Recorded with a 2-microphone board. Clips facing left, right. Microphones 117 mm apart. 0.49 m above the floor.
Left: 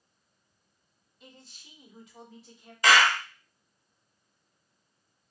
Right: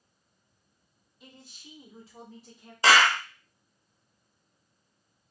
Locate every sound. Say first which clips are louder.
1.2 s a man speaking: right 2 dB; centre (ahead or behind), 0.8 m; by 2.7 s 50° right (ahead or behind), 1.2 m
2.8 s a clap: right 1 dB; 30° right (ahead or behind), 0.6 m